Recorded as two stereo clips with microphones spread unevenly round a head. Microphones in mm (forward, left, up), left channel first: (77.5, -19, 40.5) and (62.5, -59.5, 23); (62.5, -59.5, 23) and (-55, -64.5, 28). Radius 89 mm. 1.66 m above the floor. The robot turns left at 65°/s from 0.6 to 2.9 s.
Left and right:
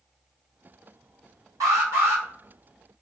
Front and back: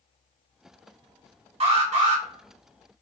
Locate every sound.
1.6 s an alarm: 155° right, 1.7 m; by 2.2 s 165° left, 1.7 m